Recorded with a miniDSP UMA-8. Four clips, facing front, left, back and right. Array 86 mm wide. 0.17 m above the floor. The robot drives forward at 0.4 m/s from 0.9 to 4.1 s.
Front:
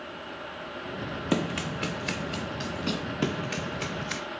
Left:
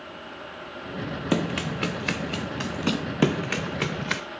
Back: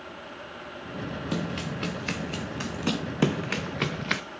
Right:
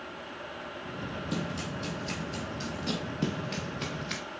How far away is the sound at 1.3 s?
About 0.8 m.